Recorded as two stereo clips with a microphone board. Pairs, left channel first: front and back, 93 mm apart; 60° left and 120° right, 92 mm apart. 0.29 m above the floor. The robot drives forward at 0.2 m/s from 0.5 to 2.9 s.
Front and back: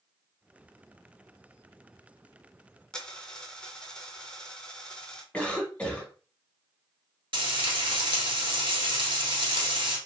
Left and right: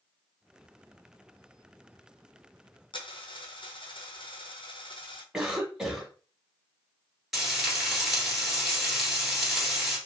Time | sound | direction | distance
2.9 | a dropped coin | 85° left | 0.8 m
5.3 | a cough | 45° right | 0.9 m
7.3 | frying | 150° left | 1.1 m